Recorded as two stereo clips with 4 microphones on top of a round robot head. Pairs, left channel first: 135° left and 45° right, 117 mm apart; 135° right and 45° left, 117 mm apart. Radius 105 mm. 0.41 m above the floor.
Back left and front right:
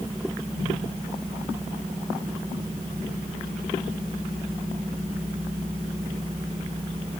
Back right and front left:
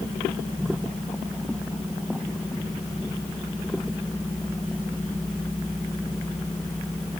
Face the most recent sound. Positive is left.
No sound to turn to.